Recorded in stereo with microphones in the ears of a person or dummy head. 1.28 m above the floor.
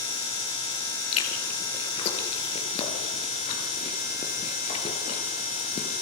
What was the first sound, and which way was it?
Chewing, 30° left (ahead or behind).